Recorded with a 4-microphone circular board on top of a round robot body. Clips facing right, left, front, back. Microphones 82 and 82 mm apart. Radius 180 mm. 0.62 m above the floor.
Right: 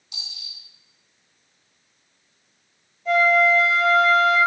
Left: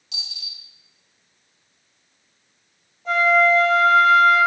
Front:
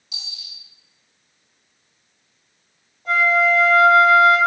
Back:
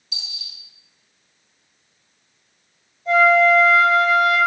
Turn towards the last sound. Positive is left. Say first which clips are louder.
# left 1 dB, back 4 dB
turn(degrees=35)